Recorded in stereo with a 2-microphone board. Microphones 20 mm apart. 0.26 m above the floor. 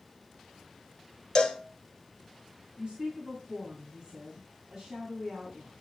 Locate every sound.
1.4 s a cowbell: 35° left (ahead or behind), 1.3 m
2.8 s a woman speaking: 35° right (ahead or behind), 2.5 m